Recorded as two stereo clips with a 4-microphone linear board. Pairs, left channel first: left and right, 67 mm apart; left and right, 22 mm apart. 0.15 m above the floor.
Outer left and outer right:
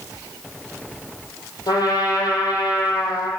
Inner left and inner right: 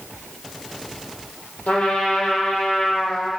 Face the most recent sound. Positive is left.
turn(degrees=75)  # may be behind; listen again after turning